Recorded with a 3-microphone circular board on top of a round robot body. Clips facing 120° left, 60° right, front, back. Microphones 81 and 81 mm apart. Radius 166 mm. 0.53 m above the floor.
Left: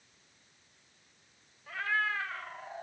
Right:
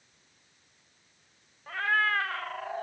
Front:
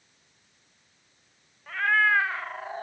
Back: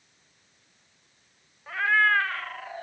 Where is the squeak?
No squeak in this recording.